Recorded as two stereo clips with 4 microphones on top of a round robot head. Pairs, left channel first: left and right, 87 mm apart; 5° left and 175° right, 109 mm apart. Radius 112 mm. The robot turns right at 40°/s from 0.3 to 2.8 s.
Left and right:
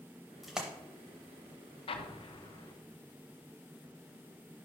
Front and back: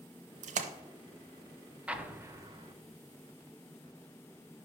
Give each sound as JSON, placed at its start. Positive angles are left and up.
{"t": 0.4, "sound": "a splash", "azimuth_deg": 180, "distance_m": 0.5}
{"t": 1.9, "sound": "an explosion", "azimuth_deg": 105, "distance_m": 0.9}